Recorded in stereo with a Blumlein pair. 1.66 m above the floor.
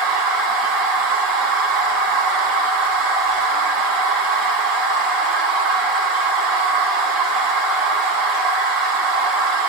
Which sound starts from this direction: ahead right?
A machine running, at 0.0 s.